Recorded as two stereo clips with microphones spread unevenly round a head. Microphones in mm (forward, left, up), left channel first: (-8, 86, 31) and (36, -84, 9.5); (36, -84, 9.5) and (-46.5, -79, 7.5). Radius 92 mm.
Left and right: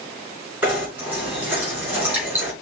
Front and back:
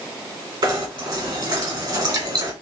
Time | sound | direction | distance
0.6 | knocking | 155° right | 2.5 m